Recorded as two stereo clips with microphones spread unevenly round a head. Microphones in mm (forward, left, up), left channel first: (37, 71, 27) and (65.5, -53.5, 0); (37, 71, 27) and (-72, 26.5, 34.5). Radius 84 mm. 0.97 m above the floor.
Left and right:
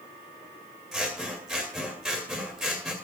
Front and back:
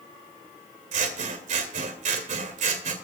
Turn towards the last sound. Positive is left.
turn(degrees=-165)